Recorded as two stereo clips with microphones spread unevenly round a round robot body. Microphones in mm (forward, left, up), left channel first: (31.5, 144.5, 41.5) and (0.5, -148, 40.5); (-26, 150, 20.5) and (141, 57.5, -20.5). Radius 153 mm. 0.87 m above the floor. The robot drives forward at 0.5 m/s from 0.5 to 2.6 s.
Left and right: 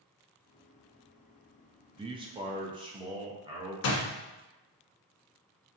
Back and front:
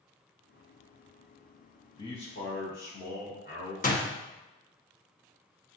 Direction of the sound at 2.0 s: 135° right.